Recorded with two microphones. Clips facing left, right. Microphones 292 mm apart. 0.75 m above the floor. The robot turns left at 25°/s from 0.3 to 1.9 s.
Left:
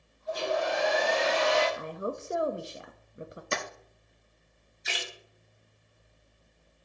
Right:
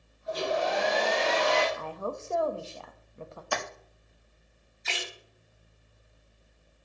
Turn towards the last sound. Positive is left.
turn(degrees=15)  # may be behind; listen again after turning